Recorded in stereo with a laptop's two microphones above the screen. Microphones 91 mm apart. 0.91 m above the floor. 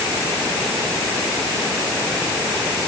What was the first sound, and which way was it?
Only background noise.